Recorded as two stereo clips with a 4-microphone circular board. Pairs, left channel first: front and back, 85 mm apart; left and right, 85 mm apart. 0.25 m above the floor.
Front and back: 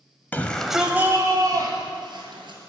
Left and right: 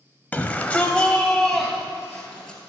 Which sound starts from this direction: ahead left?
A shout, at 0.3 s.